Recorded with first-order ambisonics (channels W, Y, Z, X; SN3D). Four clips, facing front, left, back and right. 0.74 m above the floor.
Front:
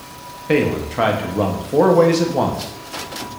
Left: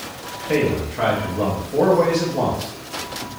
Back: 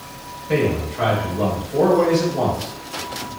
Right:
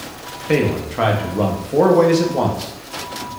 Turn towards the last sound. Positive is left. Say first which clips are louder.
# right 2 dB, front 3 dB
turn(degrees=-30)